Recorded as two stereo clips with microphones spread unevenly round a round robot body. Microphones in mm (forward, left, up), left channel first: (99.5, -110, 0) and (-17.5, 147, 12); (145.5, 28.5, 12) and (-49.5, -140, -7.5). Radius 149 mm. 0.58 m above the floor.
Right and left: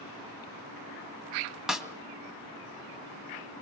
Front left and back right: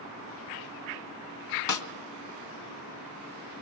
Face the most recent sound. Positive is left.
turn(degrees=25)